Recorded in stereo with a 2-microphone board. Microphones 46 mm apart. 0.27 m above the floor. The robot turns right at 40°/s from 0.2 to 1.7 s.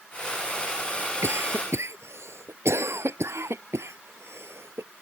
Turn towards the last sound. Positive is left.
turn(degrees=-75)  # may be behind; listen again after turning